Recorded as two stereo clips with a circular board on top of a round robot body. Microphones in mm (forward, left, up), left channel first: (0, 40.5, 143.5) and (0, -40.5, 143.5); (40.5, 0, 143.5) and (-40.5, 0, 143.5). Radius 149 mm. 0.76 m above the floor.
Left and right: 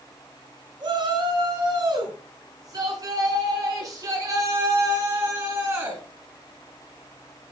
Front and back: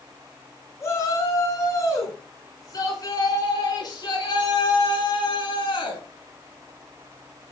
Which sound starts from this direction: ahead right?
A shout, at 0.8 s.